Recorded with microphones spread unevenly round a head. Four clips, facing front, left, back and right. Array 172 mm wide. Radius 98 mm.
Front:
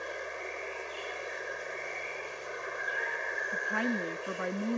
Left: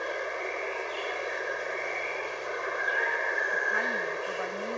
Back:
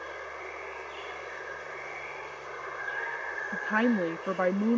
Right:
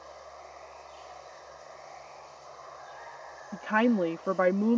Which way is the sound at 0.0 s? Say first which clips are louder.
Left 13 dB, front 1 dB; 80° left.